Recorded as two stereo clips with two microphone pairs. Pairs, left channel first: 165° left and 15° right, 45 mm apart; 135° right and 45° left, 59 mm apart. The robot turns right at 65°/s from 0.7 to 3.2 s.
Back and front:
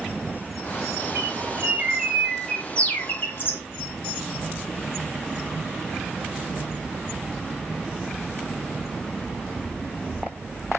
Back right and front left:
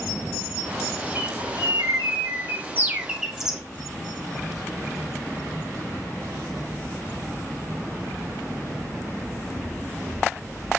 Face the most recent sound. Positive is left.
turn(degrees=130)